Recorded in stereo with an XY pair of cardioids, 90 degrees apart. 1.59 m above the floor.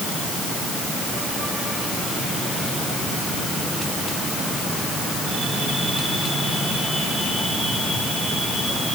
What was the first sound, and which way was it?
Only background noise.